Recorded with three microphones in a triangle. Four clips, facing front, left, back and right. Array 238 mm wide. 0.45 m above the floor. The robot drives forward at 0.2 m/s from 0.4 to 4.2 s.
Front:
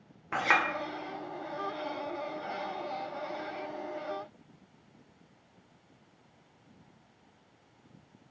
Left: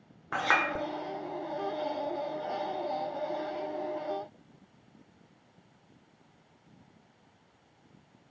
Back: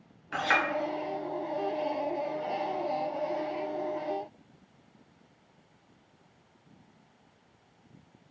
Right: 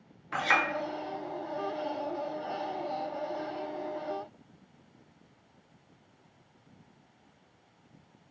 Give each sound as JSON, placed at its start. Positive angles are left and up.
{"t": 0.3, "sound": "a clink", "azimuth_deg": 45, "distance_m": 0.9}